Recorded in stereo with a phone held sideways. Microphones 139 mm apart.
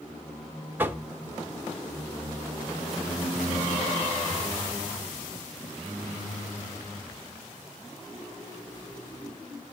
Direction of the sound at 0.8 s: 15° right (ahead or behind).